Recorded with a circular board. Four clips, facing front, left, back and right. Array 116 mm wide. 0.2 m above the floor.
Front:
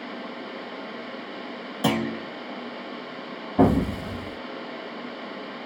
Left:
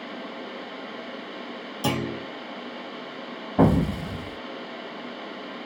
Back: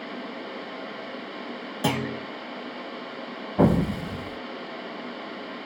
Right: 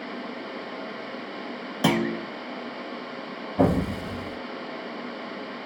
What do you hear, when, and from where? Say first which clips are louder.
1.8 s a clunk: right 4 dB, front 3 dB; 90° right, 1.0 m
3.6 s an explosion: left 2 dB, front 1 dB; 80° left, 0.8 m